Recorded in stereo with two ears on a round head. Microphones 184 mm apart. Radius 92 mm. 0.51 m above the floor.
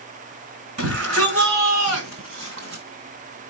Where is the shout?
80° right, 6.5 m; by 2.8 s 75° right (ahead or behind), 4.5 m.